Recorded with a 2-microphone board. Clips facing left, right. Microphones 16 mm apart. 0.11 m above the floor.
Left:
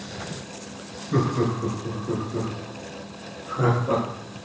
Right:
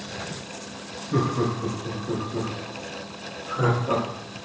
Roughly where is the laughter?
Left.